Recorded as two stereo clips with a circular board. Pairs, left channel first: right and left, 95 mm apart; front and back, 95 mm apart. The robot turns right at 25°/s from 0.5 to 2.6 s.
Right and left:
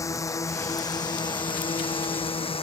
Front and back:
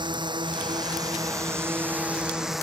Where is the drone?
145° right; by 2.6 s 90° right.